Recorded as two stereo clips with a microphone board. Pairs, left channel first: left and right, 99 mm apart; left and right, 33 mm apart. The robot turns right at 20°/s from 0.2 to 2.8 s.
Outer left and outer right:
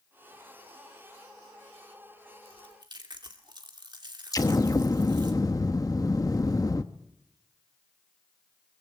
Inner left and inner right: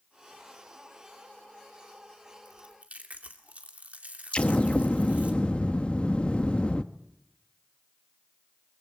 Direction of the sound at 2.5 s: 55° right (ahead or behind).